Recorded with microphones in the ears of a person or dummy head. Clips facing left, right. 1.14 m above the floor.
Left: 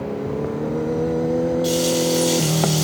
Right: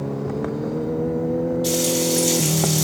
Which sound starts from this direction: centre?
Frying, at 1.6 s.